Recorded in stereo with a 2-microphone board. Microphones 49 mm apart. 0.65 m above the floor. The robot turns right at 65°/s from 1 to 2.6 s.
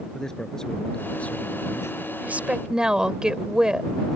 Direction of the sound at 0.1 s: 10° left.